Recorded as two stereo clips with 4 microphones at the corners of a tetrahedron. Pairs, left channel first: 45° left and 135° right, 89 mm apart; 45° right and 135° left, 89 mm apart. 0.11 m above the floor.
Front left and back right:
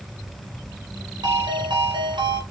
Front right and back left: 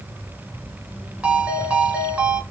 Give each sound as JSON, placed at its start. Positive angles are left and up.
{"t": 1.2, "sound": "a ringtone", "azimuth_deg": -150, "distance_m": 2.5}